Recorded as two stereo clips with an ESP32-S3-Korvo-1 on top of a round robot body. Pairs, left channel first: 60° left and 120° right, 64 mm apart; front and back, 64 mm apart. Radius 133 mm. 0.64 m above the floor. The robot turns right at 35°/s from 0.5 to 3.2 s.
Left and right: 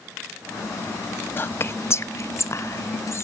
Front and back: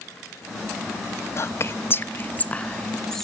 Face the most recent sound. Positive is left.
turn(degrees=80)